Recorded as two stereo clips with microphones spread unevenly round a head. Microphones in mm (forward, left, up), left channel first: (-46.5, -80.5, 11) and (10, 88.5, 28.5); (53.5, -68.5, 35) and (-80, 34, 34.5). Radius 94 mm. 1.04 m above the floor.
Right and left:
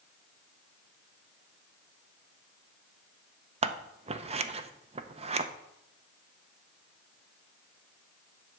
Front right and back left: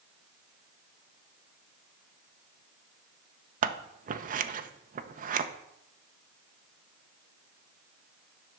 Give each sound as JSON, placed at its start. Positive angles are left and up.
{"t": 3.6, "sound": "scissors", "azimuth_deg": 125, "distance_m": 0.6}